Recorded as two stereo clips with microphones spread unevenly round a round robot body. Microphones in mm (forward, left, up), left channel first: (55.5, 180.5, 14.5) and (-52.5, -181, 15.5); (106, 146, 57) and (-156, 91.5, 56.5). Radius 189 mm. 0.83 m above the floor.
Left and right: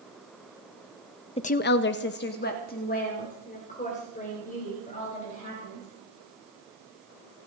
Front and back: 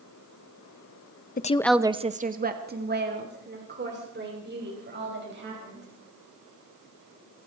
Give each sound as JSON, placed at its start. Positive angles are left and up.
{"t": 1.4, "sound": "a woman speaking", "azimuth_deg": 15, "distance_m": 0.6}